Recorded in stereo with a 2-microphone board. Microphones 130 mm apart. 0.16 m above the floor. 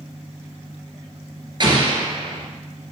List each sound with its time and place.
1.6 s an explosion: 40° right (ahead or behind), 2 m